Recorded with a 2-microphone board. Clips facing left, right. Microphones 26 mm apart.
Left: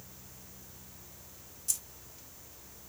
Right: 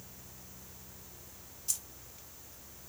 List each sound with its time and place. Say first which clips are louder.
1.7 s keys jangling: left 1 dB; 10° right (ahead or behind), 0.7 m